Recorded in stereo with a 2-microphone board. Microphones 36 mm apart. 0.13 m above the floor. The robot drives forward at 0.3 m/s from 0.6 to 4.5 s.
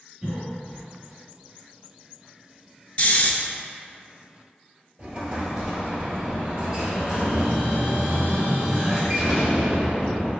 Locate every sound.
0.2 s a cough: 15° right (ahead or behind), 1.8 m
3.0 s snoring: 40° left (ahead or behind), 0.6 m; by 3.3 s 45° left (ahead or behind), 0.5 m
5.0 s an explosion: 20° right (ahead or behind), 1.1 m